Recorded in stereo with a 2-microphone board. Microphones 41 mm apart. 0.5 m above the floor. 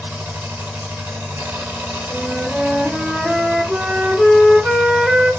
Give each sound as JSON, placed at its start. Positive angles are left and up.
{"t": 0.0, "sound": "an engine running", "side_deg": -80, "distance_m": 1.2}
{"t": 2.1, "sound": "a flute", "side_deg": -20, "distance_m": 1.1}